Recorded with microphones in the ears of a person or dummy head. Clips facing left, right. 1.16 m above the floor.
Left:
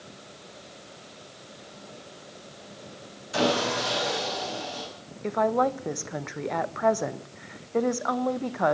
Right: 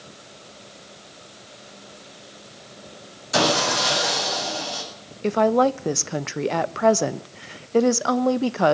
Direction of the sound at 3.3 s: 75° right (ahead or behind).